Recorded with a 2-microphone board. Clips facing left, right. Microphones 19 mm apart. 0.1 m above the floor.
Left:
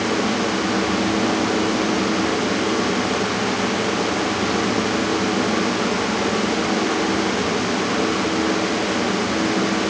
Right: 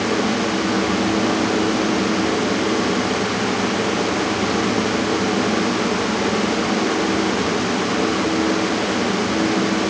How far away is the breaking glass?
I don't hear breaking glass.